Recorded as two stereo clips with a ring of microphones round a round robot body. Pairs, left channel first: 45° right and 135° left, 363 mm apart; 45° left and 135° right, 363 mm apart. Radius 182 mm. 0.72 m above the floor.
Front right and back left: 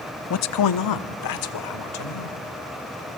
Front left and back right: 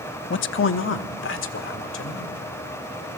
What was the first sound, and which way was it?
A man speaking, 5° right.